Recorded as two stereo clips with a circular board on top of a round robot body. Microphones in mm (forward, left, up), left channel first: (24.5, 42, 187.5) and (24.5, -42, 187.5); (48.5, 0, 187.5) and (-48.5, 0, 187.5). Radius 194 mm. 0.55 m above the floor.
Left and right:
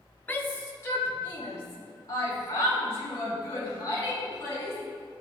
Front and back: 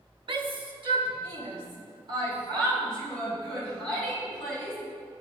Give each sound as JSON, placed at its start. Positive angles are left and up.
{"t": 0.3, "sound": "a shout", "azimuth_deg": 155, "distance_m": 1.2}